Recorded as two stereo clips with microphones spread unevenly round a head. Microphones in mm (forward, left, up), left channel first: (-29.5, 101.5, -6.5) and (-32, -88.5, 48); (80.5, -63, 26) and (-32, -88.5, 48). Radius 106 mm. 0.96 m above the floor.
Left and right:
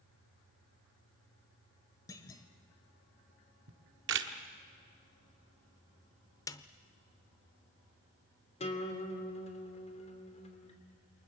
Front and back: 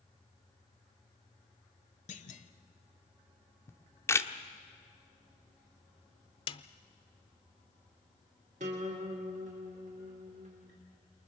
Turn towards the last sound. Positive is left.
turn(degrees=145)